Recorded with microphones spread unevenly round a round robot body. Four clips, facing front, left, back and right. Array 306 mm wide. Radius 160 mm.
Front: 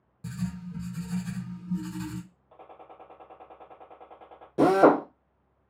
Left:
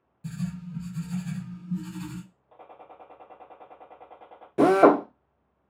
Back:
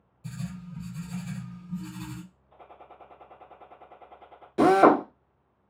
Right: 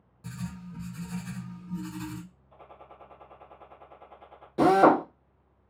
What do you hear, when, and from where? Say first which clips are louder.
0.2 s writing: left 5 dB, front 3 dB; straight ahead, 1.0 m
2.5 s a gunshot: left 4 dB, front 3 dB; 40° left, 1.1 m
4.6 s a drill: left 2 dB, back 1 dB; 100° left, 0.7 m